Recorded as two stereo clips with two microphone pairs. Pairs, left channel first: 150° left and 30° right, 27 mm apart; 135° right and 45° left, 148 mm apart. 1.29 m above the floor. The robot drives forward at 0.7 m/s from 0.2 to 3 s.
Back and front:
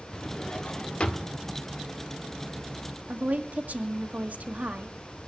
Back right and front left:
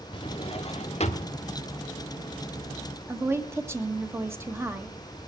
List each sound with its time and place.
0.1 s a drawer: 155° right, 0.9 m; by 1.4 s 170° right, 1.6 m
3.1 s a woman speaking: 30° right, 1.7 m